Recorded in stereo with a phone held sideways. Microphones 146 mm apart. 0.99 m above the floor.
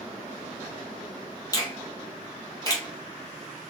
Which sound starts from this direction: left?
A finger snap, at 1.5 s.